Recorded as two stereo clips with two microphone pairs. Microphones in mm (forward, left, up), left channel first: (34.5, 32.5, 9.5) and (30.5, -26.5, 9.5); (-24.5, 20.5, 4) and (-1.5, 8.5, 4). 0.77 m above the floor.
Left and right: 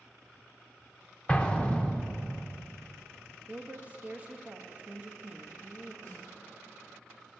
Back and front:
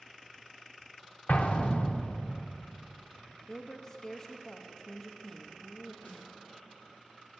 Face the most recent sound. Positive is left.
turn(degrees=145)